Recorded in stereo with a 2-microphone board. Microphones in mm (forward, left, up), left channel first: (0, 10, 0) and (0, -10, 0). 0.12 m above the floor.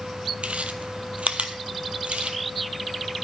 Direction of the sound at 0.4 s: 70° right (ahead or behind).